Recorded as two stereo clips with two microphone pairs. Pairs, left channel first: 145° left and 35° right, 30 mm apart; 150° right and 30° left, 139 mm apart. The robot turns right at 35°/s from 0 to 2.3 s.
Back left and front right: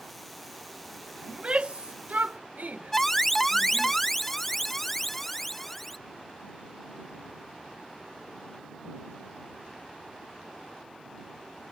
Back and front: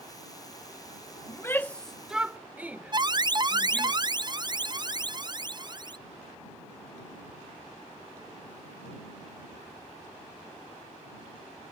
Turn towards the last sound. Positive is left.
turn(degrees=65)